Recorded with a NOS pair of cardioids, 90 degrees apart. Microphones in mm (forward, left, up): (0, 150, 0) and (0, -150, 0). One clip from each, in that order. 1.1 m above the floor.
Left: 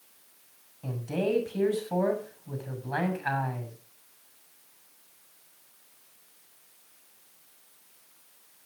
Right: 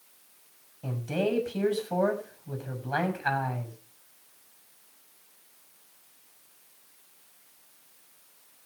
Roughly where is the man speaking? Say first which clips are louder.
Right 1 dB; ahead.